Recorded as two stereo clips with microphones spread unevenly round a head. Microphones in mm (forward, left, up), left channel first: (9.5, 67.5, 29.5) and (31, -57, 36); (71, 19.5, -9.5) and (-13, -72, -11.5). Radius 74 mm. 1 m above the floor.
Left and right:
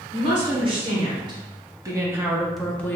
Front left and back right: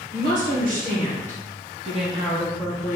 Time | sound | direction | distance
0.1 | a woman speaking | 130° right | 1.4 m